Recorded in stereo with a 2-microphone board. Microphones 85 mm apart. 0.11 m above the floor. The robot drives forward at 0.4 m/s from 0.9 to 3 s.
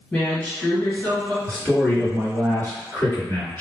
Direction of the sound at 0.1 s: 20° left (ahead or behind).